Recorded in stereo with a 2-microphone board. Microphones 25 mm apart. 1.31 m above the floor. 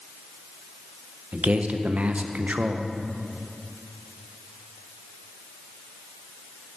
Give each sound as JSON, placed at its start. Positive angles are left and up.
{"t": 1.3, "sound": "a man speaking", "side_deg": -55, "distance_m": 0.8}